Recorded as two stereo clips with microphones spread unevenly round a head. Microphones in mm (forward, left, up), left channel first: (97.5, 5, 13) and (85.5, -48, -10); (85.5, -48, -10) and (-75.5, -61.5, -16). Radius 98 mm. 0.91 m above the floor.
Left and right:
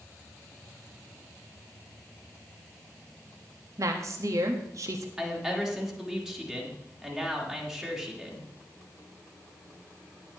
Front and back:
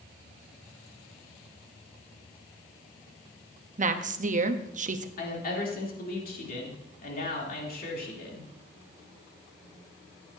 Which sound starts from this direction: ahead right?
A woman speaking, at 5.2 s.